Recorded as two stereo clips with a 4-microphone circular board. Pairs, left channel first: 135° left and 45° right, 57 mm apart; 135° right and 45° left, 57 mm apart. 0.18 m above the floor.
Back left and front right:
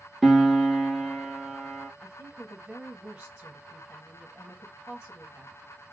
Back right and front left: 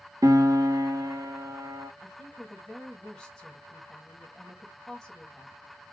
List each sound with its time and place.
0.2 s a piano: 45° left, 1.0 m
2.0 s a woman speaking: 65° right, 1.1 m